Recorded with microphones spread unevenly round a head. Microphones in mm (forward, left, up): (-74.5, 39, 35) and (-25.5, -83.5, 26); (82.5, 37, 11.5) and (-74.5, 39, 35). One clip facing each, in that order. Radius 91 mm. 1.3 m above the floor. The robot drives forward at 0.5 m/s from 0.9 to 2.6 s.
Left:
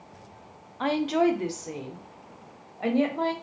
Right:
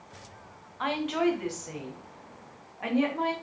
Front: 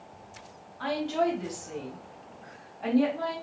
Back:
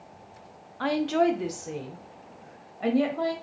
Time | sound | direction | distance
0.8 | a woman speaking | 160° left | 0.9 m